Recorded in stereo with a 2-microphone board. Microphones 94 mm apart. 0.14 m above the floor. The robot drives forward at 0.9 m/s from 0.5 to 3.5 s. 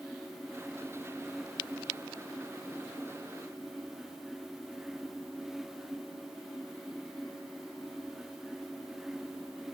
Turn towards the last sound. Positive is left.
No sound to turn to.